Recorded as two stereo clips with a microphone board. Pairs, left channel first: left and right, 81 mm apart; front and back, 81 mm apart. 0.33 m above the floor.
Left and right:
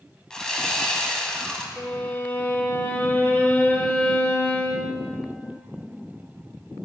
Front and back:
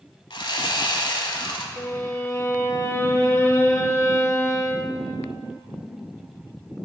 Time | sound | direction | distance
0.3 | sawing | 10° left | 0.8 m
1.8 | a violin | 35° left | 0.6 m